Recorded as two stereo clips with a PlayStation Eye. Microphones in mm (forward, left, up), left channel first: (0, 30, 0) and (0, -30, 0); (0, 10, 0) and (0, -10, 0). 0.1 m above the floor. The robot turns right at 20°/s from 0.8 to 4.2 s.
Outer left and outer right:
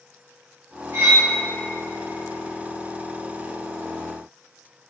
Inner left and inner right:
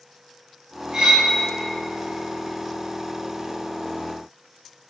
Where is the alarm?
No alarm in this recording.